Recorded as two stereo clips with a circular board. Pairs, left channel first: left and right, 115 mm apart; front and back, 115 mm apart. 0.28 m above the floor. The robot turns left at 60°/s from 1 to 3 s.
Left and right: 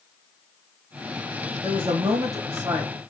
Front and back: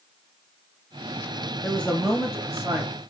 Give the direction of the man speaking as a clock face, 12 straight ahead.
2 o'clock.